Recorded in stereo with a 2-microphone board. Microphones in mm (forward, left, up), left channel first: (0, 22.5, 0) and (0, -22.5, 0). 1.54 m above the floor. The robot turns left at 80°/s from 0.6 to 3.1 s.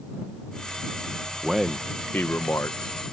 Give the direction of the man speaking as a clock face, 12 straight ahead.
6 o'clock.